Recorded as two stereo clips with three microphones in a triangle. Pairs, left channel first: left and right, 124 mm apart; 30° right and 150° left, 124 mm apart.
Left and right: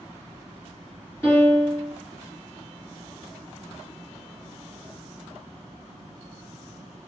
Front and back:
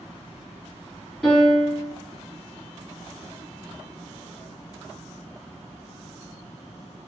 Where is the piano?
40° left, 1.7 m.